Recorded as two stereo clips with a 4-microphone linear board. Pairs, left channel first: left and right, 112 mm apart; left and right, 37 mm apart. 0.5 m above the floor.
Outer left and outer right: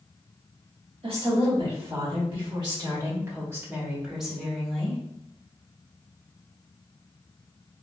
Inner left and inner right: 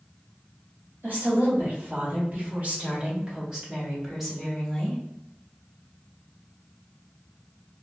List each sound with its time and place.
1.0 s a woman speaking: 60° right (ahead or behind), 1.9 m; by 5.0 s 10° left (ahead or behind), 1.3 m